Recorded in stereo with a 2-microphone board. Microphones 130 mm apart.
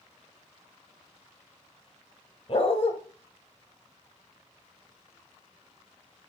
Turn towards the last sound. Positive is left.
turn(degrees=45)  # may be behind; listen again after turning